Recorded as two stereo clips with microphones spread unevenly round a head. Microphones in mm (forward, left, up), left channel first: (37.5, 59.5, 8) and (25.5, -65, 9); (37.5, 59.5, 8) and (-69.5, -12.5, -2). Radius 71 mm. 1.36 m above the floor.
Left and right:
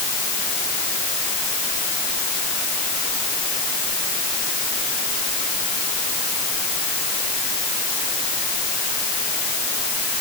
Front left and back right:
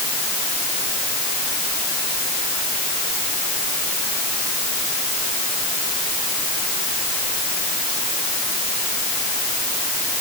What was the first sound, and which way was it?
Only background noise.